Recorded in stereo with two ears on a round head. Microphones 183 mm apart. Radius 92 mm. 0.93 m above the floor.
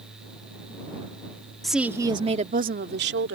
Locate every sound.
1.6 s a woman speaking: centre (ahead or behind); by 3.4 s 60° right (ahead or behind)